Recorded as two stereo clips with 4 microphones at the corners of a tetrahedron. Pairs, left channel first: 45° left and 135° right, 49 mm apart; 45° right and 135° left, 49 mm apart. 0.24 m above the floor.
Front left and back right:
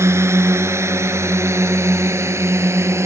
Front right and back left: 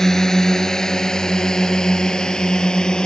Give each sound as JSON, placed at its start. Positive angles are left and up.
{"t": 0.0, "sound": "a drone", "azimuth_deg": -125}